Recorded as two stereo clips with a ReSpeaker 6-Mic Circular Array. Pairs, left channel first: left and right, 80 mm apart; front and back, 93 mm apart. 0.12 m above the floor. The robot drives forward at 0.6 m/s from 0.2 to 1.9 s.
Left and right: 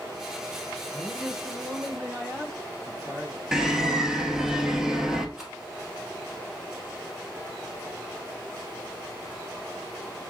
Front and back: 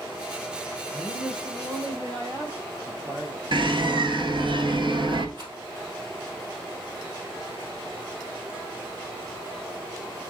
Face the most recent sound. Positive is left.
turn(degrees=-175)